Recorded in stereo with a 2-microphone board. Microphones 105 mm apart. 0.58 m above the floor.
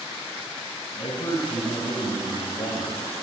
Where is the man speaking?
70° left (ahead or behind), 5 m; by 3.0 s 55° left (ahead or behind), 3 m.